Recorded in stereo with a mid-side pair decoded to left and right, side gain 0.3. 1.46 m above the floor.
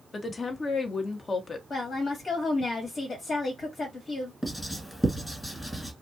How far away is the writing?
About 1.5 m.